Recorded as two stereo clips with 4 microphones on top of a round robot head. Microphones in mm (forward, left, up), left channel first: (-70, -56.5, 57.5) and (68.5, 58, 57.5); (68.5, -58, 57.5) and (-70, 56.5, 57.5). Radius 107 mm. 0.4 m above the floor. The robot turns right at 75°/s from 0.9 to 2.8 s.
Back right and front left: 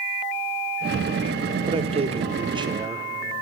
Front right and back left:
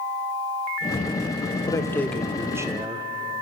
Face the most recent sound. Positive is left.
turn(degrees=95)